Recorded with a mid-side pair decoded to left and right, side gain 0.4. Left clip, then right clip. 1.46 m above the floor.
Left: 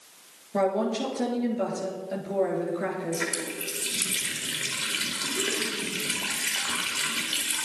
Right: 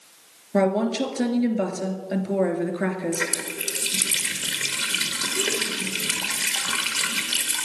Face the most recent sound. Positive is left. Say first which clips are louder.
# right 3 dB
turn(degrees=-70)